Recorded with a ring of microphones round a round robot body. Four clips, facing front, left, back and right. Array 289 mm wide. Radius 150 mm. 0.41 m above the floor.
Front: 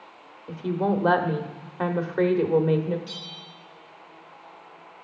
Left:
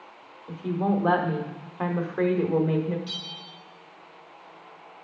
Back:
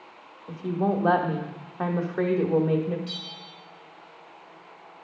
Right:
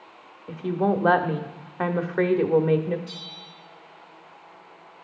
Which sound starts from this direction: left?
A bell, at 3.1 s.